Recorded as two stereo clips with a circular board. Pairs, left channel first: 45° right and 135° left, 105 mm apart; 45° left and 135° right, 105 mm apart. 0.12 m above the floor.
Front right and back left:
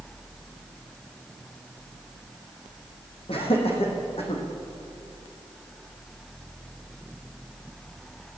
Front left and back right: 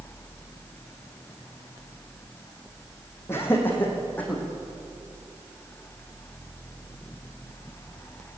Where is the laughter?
20° right, 6 m; by 4.4 s 35° right, 7 m.